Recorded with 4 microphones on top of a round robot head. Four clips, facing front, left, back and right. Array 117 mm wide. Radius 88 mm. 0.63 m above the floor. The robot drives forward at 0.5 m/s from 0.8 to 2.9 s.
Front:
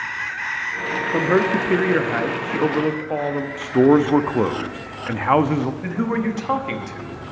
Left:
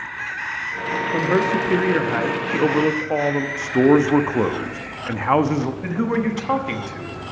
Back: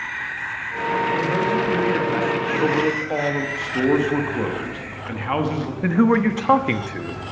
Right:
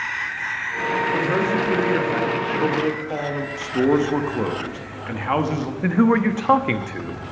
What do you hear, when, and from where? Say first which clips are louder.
1.1 s a man speaking: left 5 dB, front 2 dB; 20° left, 1.2 m; by 3.5 s 80° left, 0.8 m
3.6 s a man speaking: left 3 dB, front 7 dB; 30° left, 0.8 m
5.8 s a man speaking: right 9 dB, back 5 dB; 135° right, 0.9 m